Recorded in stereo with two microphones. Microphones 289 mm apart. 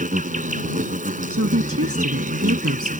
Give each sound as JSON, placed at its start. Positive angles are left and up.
{"t": 0.0, "sound": "an insect", "side_deg": -30}
{"t": 1.3, "sound": "a woman speaking", "side_deg": -50}